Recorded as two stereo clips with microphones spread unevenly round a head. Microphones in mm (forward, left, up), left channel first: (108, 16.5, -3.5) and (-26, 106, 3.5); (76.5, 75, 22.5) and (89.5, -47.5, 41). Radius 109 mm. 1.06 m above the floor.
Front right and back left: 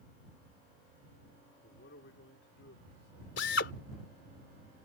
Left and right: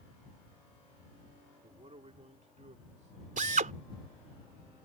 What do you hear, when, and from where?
1.6 s a man speaking: 40° right; by 3.3 s 60° right
3.4 s a drill: 70° right